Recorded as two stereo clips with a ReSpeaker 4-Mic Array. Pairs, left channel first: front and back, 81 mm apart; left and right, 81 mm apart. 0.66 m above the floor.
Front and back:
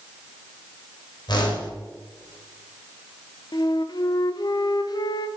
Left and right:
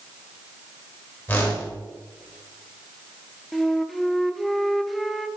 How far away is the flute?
About 0.6 m.